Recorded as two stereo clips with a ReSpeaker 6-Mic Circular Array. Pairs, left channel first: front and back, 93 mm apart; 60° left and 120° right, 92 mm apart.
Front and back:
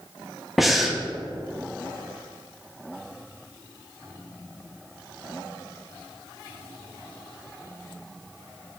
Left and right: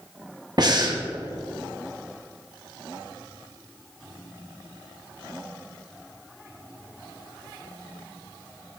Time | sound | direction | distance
0.6 | breathing | 90° right | 0.8 m